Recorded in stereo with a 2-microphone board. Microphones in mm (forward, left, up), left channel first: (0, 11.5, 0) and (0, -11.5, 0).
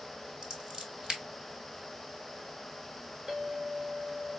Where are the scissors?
35° right (ahead or behind), 1.2 m.